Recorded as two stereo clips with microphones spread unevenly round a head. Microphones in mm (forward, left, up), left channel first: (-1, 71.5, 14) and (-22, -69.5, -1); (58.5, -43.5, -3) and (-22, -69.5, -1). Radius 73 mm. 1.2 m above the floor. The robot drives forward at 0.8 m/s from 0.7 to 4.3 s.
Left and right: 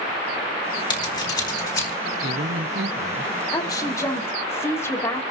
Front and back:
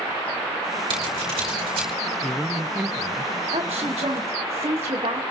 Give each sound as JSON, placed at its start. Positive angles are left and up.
{"t": 0.9, "sound": "scissors", "azimuth_deg": 140, "distance_m": 3.5}
{"t": 2.2, "sound": "a man speaking", "azimuth_deg": -65, "distance_m": 1.1}
{"t": 3.5, "sound": "a woman speaking", "azimuth_deg": 145, "distance_m": 1.9}